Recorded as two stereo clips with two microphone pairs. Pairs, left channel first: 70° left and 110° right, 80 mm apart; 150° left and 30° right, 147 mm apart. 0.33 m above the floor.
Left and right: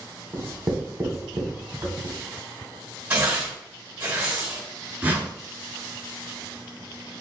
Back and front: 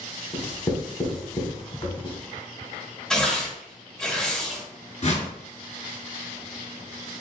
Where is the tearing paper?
135° right, 1.5 m.